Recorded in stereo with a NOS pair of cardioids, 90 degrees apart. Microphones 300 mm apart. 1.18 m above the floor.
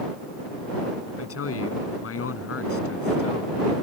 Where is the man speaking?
50° left.